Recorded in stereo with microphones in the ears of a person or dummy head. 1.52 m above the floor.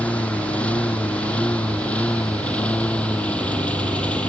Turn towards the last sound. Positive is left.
turn(degrees=5)  # may be behind; listen again after turning